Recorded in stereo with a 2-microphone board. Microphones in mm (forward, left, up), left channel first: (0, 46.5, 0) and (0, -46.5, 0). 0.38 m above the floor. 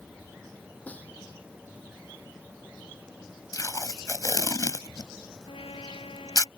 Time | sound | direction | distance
0.9 | a snare drum | 15° left (ahead or behind) | ?
3.5 | tape being pulled | 40° left (ahead or behind) | ?
5.5 | a trumpet | 80° left | ?